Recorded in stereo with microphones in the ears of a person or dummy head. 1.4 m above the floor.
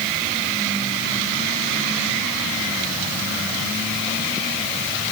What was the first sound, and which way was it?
Only background noise.